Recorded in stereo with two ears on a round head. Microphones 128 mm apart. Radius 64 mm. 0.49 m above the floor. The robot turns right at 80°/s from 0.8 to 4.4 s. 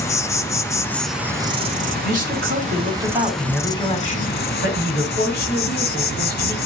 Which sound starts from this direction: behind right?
A man speaking, at 2.0 s.